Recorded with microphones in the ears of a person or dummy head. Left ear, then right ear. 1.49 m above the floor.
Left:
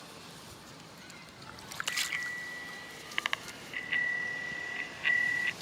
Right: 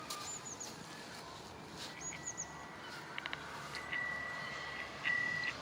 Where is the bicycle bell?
55° left (ahead or behind); by 5.5 s 15° left (ahead or behind).